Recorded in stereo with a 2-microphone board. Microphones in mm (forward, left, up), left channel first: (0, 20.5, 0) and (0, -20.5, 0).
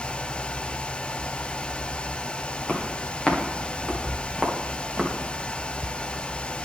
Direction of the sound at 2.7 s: 35° left (ahead or behind).